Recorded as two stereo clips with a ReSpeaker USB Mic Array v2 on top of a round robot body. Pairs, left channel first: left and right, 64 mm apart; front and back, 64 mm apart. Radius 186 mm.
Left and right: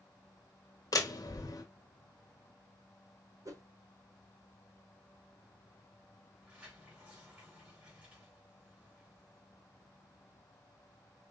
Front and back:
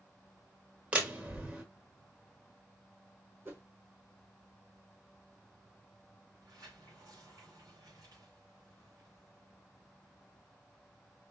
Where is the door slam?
115° left, 1.6 m.